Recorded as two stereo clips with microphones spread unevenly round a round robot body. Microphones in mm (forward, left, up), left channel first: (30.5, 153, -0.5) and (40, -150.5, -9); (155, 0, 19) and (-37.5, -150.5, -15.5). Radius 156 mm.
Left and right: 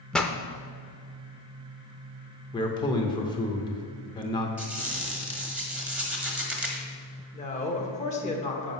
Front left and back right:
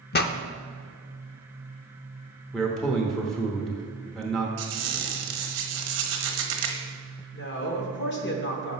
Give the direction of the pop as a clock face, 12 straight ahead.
12 o'clock.